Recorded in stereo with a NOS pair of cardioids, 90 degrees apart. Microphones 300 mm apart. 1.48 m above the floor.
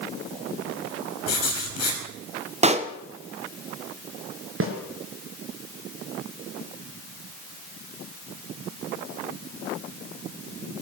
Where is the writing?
60° left, 6 m.